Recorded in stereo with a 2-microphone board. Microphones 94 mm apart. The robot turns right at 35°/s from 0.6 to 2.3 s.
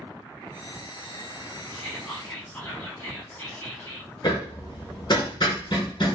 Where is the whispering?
20° left (ahead or behind), 1.0 m.